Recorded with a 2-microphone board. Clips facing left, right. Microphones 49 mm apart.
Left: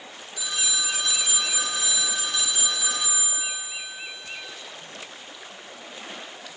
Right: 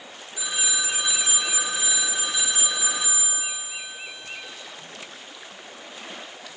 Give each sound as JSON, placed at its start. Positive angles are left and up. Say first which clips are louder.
{"t": 0.4, "sound": "a phone ringing", "louder": "right 1 dB", "side_deg": -20, "distance_m": 2.5}